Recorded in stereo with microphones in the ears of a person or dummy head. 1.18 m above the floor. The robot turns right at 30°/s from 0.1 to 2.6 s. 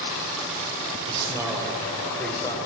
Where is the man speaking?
25° right, 1.0 m; by 2.6 s 20° left, 1.0 m.